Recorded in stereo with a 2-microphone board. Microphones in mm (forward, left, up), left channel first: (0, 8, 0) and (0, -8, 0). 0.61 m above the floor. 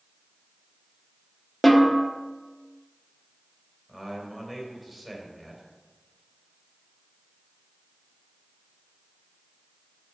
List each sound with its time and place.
1.6 s a snare drum: centre (ahead or behind), 1.2 m
3.9 s a man speaking: 10° right (ahead or behind), 3.5 m